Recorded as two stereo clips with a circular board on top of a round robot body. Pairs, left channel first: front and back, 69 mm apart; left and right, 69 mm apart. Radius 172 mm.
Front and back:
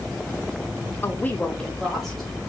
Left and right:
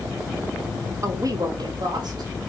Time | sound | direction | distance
1.0 | a woman speaking | 50° right | 1.3 m